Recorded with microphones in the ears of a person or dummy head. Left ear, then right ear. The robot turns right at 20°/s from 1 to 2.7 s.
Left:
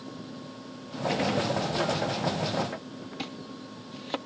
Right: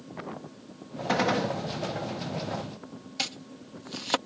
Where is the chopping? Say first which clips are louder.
Right 8 dB; 60° right (ahead or behind).